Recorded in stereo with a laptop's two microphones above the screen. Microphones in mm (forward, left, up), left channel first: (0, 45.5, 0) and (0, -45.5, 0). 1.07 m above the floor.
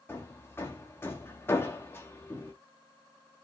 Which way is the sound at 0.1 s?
25° left (ahead or behind).